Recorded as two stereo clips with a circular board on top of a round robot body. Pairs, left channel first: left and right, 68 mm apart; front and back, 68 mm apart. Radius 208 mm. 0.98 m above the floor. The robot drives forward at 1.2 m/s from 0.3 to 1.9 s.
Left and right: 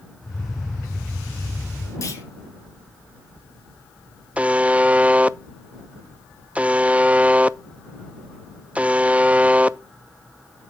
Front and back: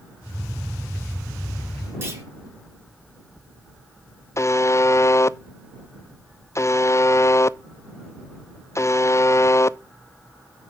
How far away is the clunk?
About 2.5 m.